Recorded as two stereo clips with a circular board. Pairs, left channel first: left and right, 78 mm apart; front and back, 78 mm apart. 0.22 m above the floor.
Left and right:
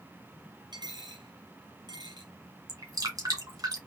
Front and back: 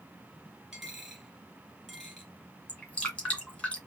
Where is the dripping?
75° right, 2.5 m.